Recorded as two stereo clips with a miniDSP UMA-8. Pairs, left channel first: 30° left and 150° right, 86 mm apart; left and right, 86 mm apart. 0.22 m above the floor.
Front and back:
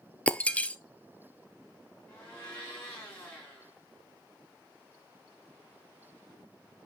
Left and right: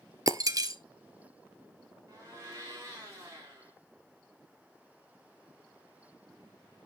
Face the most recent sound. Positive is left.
turn(degrees=-35)